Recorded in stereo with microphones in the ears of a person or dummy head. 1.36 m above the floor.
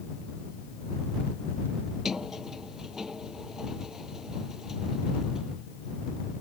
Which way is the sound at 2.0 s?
Centre (ahead or behind).